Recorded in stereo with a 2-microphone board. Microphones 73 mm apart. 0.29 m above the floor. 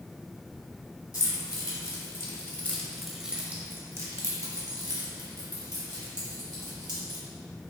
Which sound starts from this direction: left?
Keys jangling, at 1.1 s.